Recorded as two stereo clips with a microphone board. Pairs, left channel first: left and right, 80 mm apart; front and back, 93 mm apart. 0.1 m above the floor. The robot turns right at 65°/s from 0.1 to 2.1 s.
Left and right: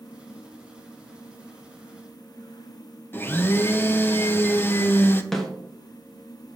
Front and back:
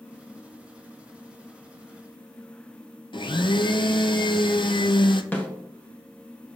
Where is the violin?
I don't hear a violin.